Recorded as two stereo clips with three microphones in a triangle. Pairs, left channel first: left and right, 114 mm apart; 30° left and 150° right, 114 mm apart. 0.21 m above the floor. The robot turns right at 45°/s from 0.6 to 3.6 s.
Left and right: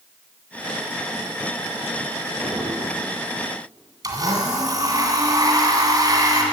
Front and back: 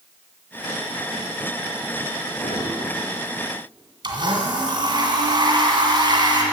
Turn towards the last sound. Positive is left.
turn(degrees=-130)